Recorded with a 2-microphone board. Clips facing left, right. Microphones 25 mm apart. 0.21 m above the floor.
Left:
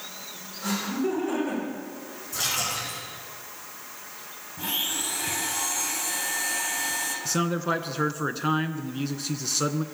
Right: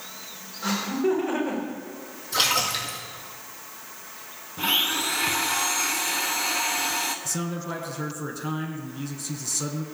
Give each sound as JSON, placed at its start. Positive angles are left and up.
{"t": 0.6, "sound": "laughter", "side_deg": -25, "distance_m": 9.5}
{"t": 2.3, "sound": "a splash", "side_deg": -80, "distance_m": 6.0}
{"t": 4.6, "sound": "a blender", "side_deg": -55, "distance_m": 1.8}
{"t": 7.2, "sound": "a man speaking", "side_deg": 40, "distance_m": 2.0}